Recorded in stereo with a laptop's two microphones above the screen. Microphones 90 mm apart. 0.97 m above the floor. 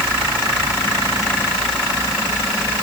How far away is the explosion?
I don't hear an explosion.